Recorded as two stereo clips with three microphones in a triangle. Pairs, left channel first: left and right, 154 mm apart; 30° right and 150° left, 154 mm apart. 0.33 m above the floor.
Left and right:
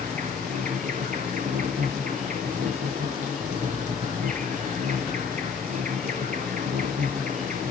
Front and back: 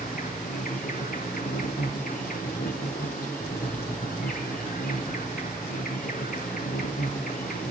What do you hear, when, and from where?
0.0 s an insect: 55° right, 3 m